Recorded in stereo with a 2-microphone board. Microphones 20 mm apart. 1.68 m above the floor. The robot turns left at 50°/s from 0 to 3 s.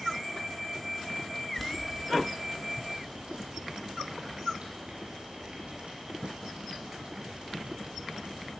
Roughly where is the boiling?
Centre.